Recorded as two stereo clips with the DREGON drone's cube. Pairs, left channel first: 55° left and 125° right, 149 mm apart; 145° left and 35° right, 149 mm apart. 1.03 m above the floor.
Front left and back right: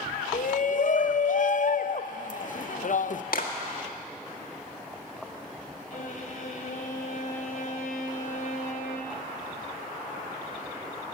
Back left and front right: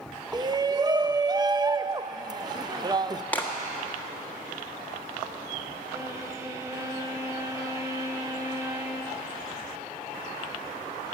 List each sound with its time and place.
0.3 s a shout: 30° left, 0.5 m
3.3 s a clap: 65° left, 1.6 m
5.9 s a violin: 35° left, 1.8 m